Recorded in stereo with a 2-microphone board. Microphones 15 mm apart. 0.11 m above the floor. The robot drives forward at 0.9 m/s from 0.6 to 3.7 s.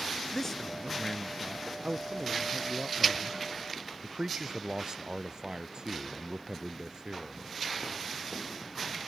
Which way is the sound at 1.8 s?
55° right (ahead or behind).